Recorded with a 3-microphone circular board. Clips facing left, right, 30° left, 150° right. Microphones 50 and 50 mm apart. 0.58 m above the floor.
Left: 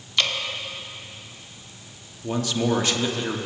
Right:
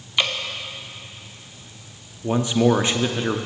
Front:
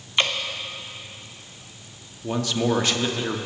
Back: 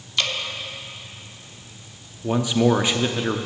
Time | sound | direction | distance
0.2 | dripping | 20° right | 0.8 m
2.2 | a man speaking | 95° right | 0.6 m